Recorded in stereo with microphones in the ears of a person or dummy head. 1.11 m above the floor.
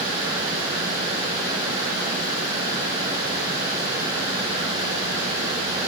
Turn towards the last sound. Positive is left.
No sound to turn to.